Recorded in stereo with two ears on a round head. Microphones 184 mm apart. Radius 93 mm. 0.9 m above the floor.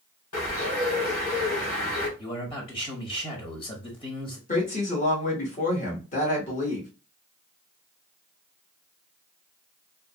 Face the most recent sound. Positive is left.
turn(degrees=35)  # may be behind; listen again after turning